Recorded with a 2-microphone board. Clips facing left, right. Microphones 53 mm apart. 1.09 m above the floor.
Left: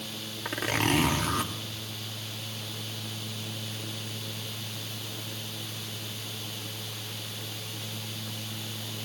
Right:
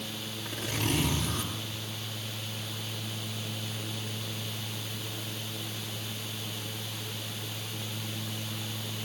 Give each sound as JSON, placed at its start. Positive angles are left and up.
{"t": 0.5, "sound": "a zipper", "side_deg": 65, "distance_m": 2.0}